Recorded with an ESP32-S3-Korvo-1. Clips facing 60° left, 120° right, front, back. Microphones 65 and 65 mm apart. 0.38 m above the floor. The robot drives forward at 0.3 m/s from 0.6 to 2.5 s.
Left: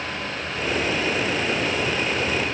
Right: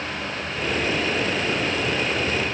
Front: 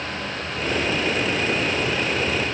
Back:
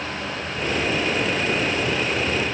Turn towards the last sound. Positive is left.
No sound to turn to.